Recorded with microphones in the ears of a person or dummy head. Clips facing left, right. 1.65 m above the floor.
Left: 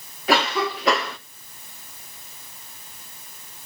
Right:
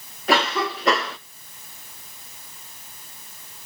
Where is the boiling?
I don't hear boiling.